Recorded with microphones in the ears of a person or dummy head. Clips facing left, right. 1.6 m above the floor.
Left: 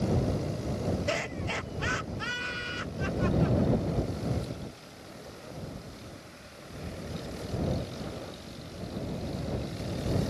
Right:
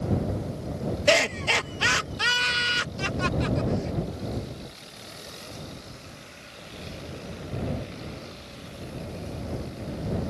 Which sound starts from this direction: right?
Laughter, at 1.1 s.